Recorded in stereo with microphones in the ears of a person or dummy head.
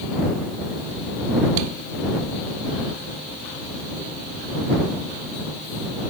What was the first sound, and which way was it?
Only background noise.